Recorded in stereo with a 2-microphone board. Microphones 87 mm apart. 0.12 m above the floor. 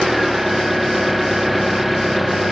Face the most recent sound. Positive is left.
turn(degrees=0)  # may be behind; listen again after turning